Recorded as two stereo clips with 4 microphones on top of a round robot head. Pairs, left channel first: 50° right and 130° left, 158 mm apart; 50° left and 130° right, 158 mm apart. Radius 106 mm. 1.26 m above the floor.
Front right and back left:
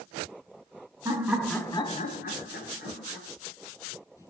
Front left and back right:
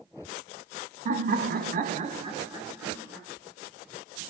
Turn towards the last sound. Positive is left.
turn(degrees=-45)